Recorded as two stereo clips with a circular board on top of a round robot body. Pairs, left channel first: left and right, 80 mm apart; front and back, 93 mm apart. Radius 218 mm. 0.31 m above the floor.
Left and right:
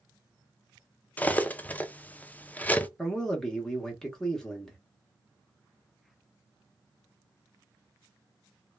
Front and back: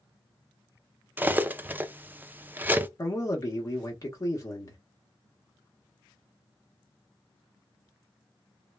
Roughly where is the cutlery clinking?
Behind left.